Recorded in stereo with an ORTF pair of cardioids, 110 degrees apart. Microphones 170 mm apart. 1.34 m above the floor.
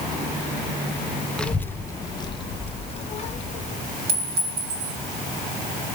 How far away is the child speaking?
About 0.9 m.